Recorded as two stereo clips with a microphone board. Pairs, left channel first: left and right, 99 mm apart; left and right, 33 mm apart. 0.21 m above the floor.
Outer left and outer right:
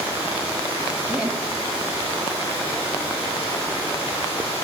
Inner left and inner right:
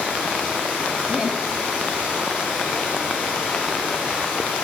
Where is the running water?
75° left (ahead or behind), 6.5 m.